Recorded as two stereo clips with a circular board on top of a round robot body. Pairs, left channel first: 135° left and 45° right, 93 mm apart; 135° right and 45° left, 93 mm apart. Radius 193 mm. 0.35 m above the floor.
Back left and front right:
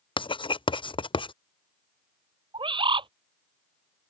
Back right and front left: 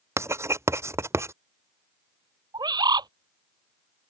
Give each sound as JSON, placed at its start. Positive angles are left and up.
{"t": 0.2, "sound": "writing", "azimuth_deg": 105}
{"t": 2.5, "sound": "a bird", "azimuth_deg": -5}